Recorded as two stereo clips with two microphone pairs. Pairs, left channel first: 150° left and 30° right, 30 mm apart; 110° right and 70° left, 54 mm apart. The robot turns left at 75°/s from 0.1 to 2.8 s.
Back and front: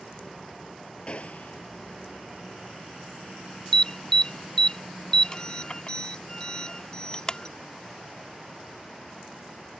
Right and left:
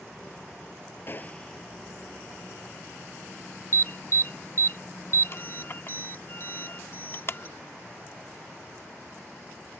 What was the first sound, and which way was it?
A gunshot, 155° right.